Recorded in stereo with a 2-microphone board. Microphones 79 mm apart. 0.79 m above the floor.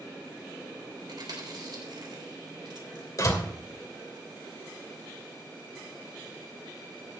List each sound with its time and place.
1.1 s chewing: 65° right (ahead or behind), 3.5 m
3.2 s a door slam: 45° left (ahead or behind), 2.5 m